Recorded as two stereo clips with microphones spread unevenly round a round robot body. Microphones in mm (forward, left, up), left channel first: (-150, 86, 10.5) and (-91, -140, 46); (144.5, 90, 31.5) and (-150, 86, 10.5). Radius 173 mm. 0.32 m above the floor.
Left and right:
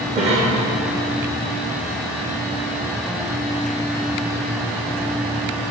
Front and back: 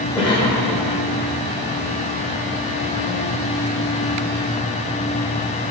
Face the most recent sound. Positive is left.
turn(degrees=-55)